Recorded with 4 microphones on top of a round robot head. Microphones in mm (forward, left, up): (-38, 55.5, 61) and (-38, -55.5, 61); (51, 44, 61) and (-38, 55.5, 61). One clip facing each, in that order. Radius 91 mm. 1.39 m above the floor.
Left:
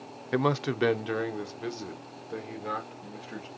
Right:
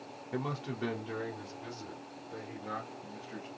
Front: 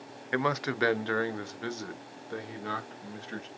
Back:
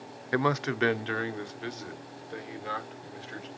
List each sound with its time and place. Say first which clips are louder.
0.3 s a man speaking: left 10 dB, back 2 dB; 90° left, 0.6 m; by 3.5 s 50° left, 2.5 m